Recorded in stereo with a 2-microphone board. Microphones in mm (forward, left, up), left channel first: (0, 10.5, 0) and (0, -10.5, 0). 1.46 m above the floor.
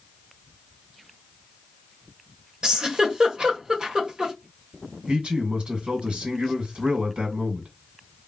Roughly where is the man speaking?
Right.